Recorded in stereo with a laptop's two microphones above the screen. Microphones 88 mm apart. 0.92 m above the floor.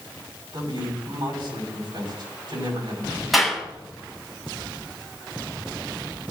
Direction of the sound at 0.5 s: 70° right (ahead or behind).